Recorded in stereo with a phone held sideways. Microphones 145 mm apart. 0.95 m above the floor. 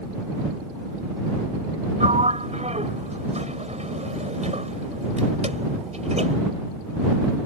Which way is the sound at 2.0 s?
50° right (ahead or behind).